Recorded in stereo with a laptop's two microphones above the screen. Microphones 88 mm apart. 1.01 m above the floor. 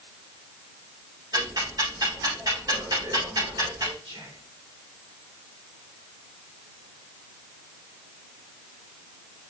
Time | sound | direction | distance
1.3 | ticking | 50° right (ahead or behind) | 4.5 m
4.0 | whispering | 80° right | 3 m